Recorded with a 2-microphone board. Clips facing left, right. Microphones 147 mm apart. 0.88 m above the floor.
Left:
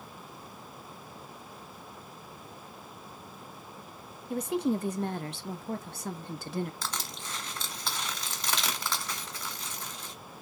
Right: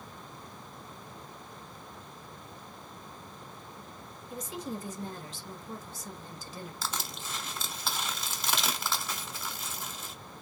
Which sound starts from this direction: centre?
Crushing, at 6.8 s.